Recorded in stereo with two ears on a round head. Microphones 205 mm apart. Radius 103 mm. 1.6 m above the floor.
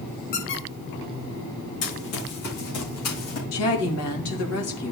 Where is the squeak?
50° left (ahead or behind), 4 m.